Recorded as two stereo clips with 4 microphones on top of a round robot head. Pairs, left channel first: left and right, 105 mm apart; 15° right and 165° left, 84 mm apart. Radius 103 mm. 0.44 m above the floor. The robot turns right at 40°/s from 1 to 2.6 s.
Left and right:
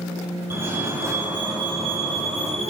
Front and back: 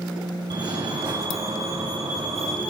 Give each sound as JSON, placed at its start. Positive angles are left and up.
{"t": 0.5, "sound": "a fire alarm", "azimuth_deg": -155, "distance_m": 9.5}